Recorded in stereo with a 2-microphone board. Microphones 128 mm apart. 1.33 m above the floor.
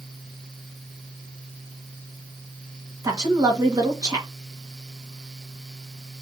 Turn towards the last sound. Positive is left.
turn(degrees=-30)  # may be behind; listen again after turning